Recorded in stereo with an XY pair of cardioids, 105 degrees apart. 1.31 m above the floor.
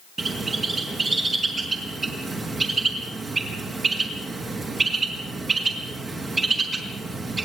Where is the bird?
35° right, 5 m.